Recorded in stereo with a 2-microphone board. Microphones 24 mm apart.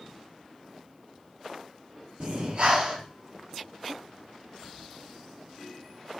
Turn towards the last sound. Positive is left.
turn(degrees=-55)  # may be behind; listen again after turning